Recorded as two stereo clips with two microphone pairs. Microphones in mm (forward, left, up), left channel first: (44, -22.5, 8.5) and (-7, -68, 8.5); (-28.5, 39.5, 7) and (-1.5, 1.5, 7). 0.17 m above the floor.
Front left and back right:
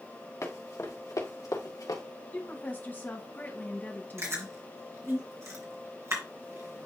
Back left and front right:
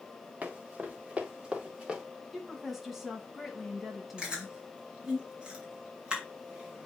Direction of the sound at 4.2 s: 120° right.